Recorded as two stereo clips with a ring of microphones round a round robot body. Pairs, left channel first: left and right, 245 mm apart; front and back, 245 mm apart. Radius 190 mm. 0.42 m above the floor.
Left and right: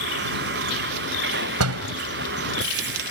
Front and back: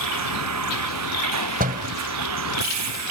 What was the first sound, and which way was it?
A vehicle, 150° right.